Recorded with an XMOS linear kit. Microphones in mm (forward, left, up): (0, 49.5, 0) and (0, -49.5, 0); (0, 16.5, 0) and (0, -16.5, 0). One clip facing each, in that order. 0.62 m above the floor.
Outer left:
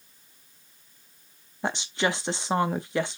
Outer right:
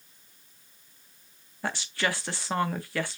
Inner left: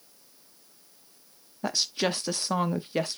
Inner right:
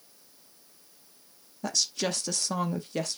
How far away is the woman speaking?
About 0.6 m.